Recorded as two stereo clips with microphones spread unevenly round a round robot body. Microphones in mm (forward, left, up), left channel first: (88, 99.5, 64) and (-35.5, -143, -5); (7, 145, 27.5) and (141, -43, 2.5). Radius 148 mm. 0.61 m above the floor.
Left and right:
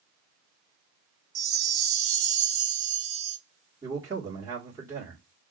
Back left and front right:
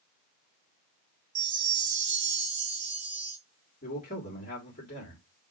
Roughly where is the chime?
Right.